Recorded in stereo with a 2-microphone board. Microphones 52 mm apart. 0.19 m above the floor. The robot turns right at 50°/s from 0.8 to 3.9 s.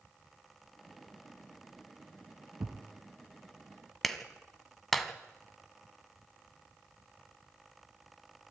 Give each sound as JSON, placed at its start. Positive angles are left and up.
{"t": 2.6, "sound": "a thud", "side_deg": -55, "distance_m": 1.1}
{"t": 4.0, "sound": "a clap", "side_deg": 5, "distance_m": 1.5}